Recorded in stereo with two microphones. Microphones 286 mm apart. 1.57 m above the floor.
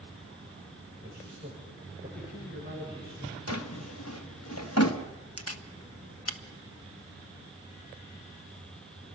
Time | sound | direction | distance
1.0 | a man speaking | 35° right (ahead or behind) | 6.5 m
3.5 | a drawer | 60° left (ahead or behind) | 1.3 m
5.4 | a camera shutter | 55° left (ahead or behind) | 1.1 m